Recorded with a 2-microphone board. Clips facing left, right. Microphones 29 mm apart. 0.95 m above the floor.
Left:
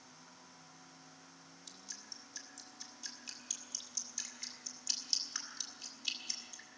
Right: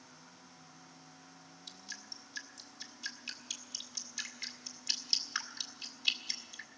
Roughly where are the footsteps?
I don't hear footsteps.